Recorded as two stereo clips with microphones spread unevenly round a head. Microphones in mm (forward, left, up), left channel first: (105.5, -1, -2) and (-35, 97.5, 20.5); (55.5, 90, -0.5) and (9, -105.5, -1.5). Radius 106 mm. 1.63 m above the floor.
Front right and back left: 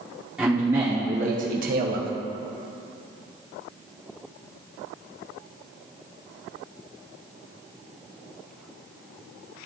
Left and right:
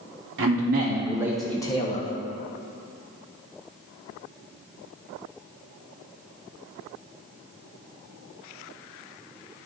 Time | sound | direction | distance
0.4 | a man speaking | 135° right | 1.0 m